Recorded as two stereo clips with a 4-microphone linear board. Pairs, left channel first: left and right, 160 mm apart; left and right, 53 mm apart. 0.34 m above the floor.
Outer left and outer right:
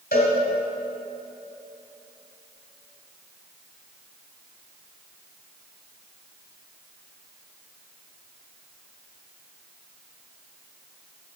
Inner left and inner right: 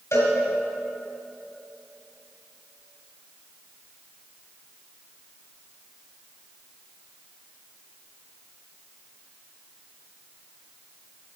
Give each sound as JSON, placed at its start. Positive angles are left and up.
{"t": 0.1, "sound": "a cowbell", "side_deg": 80, "distance_m": 3.0}